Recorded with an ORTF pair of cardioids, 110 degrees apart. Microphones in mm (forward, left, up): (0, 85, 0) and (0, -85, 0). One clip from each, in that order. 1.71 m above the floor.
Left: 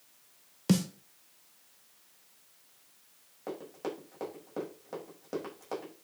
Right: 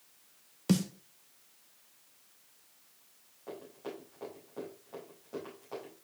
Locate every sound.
0.7 s a snare drum: 5° left, 1.1 m
3.5 s running footsteps: 65° left, 6 m